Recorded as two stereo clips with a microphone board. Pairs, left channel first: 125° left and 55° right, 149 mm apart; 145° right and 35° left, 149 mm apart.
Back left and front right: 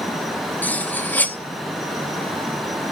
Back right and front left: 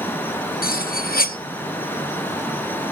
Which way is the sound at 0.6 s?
155° right.